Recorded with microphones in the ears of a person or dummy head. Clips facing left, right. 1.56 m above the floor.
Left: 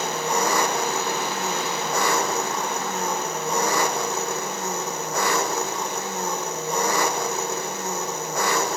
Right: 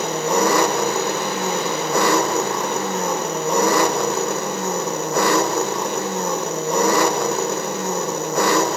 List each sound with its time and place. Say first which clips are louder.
0.0 s an engine running: right 6 dB; 55° right (ahead or behind), 1.1 m